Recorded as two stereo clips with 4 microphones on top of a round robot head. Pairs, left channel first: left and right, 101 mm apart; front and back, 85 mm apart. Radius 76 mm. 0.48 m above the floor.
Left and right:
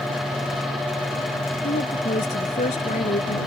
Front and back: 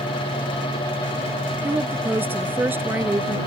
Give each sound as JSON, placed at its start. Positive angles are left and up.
{"t": 1.6, "sound": "a woman speaking", "azimuth_deg": 115}